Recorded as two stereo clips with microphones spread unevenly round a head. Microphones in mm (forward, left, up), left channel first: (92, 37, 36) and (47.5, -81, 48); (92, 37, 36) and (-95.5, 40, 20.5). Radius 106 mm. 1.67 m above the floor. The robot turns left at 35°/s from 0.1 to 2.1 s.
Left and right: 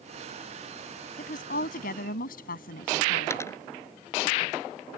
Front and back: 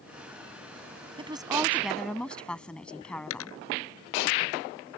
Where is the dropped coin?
Straight ahead.